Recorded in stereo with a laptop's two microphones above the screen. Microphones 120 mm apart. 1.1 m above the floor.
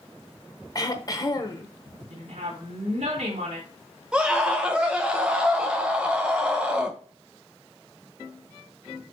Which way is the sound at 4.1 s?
10° right (ahead or behind).